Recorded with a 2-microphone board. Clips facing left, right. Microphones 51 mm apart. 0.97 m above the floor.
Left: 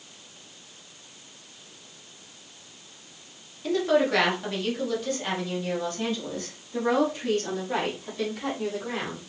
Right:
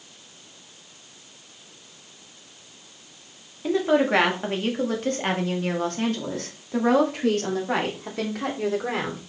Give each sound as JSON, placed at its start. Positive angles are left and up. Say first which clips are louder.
{"t": 3.6, "sound": "a woman speaking", "louder": "right 2 dB", "side_deg": -15, "distance_m": 2.0}